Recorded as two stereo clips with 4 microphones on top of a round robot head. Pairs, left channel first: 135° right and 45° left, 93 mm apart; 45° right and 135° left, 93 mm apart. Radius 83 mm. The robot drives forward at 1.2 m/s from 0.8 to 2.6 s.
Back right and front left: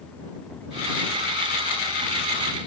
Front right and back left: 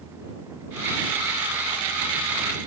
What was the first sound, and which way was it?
Only background noise.